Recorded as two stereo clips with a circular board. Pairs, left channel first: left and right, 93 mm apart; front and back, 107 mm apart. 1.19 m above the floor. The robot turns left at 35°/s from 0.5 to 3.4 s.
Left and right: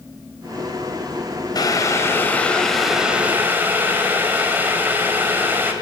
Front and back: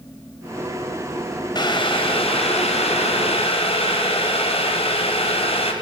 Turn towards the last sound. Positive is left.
turn(degrees=-20)